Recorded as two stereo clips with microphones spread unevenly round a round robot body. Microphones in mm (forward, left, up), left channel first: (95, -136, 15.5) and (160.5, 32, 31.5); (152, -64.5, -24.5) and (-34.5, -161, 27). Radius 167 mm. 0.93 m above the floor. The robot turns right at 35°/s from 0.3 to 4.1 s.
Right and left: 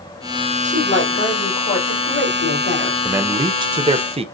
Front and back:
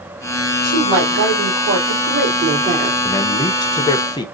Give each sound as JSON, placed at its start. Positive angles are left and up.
{"t": 0.6, "sound": "a woman speaking", "azimuth_deg": -155, "distance_m": 2.5}
{"t": 3.0, "sound": "a man speaking", "azimuth_deg": -5, "distance_m": 0.7}